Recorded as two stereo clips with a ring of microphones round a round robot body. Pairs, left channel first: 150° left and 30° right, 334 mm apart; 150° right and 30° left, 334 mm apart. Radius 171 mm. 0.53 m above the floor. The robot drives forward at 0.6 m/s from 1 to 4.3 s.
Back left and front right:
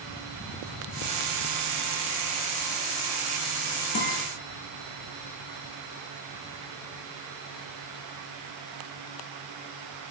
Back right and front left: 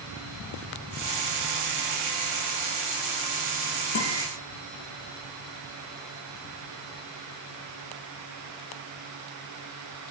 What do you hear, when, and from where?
4.0 s a guitar: 165° right, 9.5 m; by 4.2 s 170° right, 9.5 m